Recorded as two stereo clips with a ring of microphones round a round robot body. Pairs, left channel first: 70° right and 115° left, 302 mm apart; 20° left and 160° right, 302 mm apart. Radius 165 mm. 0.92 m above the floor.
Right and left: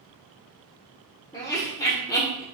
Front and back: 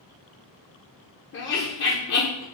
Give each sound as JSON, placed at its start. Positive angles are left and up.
{"t": 1.3, "sound": "laughter", "azimuth_deg": 5, "distance_m": 1.0}